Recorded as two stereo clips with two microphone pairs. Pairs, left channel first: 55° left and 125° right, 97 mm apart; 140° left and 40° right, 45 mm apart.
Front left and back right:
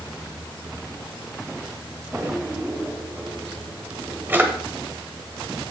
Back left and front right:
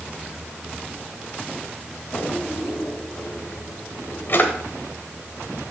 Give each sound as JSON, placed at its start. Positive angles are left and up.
{"t": 2.1, "sound": "a drawer", "azimuth_deg": 170, "distance_m": 1.1}